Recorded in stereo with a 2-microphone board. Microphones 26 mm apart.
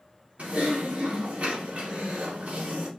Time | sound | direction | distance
0.4 | typing on a keyboard | 65° right (ahead or behind) | 2.5 m